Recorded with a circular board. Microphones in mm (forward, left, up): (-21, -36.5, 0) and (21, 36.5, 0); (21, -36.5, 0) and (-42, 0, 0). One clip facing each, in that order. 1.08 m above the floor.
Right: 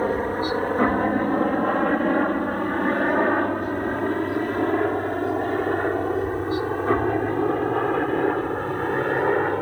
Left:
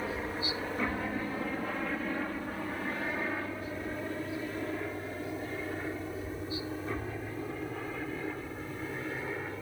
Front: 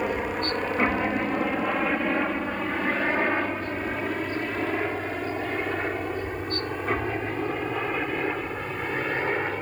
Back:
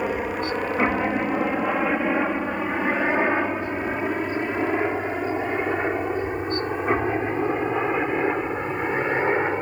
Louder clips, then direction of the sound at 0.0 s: Right 12 dB, back 2 dB; 130° right.